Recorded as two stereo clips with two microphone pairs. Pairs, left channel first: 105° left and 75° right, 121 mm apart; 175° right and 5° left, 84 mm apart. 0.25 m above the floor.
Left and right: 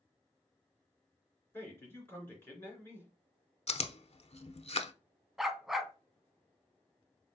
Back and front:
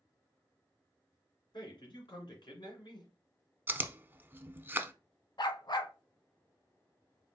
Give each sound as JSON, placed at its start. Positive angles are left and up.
{"t": 1.5, "sound": "a man speaking", "azimuth_deg": 175, "distance_m": 2.5}
{"t": 3.7, "sound": "chewing", "azimuth_deg": 70, "distance_m": 0.5}
{"t": 5.4, "sound": "a dog barking", "azimuth_deg": -160, "distance_m": 0.6}